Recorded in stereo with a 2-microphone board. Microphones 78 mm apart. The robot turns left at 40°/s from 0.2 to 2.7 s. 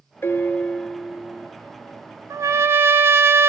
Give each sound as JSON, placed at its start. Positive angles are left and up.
{"t": 0.2, "sound": "a piano", "azimuth_deg": 35, "distance_m": 0.9}
{"t": 2.3, "sound": "a trumpet", "side_deg": -45, "distance_m": 0.8}